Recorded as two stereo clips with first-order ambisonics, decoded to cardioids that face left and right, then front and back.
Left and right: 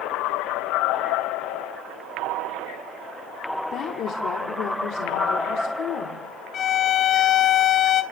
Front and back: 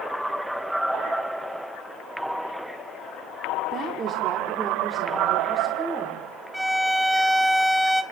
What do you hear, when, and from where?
3.7 s a woman speaking: 130° left, 1.7 m; by 6.2 s 85° left, 2 m
6.5 s a violin: 90° left, 0.8 m